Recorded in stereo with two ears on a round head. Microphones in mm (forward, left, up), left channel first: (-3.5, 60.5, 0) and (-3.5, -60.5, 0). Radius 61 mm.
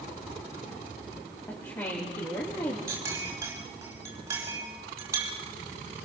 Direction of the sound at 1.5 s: 20° left (ahead or behind).